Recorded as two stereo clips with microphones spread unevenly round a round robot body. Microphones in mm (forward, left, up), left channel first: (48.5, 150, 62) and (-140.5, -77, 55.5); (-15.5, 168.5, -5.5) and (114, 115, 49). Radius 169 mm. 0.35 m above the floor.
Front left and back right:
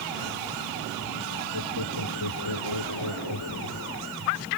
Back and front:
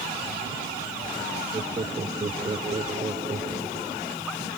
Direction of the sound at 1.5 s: 20° left.